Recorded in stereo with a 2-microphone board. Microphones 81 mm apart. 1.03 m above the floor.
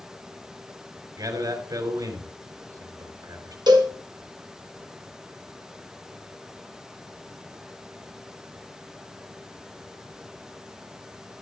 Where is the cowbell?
60° right (ahead or behind), 1.5 m.